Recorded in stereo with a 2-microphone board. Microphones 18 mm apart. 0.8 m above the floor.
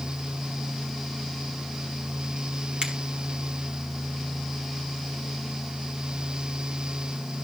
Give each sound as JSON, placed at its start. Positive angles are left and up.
{"t": 2.8, "sound": "a finger snap", "side_deg": -60, "distance_m": 5.0}